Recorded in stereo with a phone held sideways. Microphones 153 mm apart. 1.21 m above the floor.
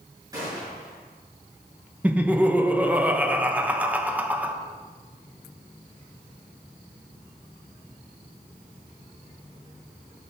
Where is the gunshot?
25° right (ahead or behind), 4.5 m.